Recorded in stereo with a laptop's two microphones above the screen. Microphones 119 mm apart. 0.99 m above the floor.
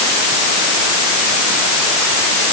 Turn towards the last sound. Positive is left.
No sound to turn to.